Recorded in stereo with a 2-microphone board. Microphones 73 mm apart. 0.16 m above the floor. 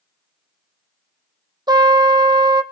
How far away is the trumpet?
About 1.0 m.